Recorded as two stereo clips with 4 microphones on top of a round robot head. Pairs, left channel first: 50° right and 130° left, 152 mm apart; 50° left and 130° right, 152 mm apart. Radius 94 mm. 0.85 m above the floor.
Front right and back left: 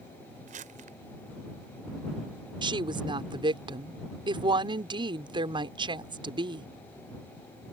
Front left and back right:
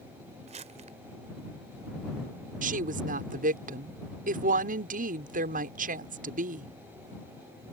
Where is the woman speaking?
170° right.